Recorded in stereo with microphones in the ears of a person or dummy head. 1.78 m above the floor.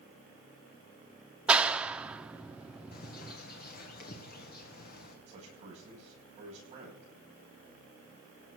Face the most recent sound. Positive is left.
turn(degrees=-35)  # may be behind; listen again after turning